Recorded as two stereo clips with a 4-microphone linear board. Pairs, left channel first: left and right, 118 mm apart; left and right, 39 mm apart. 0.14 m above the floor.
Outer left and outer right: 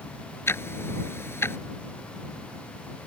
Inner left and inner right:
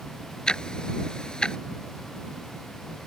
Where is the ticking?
20° left (ahead or behind).